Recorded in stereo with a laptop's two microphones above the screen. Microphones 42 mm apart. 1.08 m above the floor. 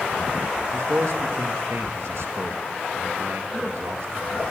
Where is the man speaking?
80° right, 1.2 m.